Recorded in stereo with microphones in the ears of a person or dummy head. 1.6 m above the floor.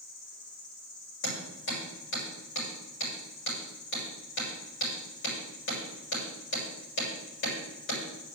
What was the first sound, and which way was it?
An insect, 80° left.